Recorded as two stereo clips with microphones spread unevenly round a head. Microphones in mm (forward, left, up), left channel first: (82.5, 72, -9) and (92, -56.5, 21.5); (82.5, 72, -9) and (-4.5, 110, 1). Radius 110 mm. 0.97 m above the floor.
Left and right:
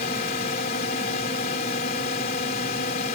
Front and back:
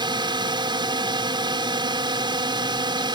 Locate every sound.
0.0 s a drone: 125° left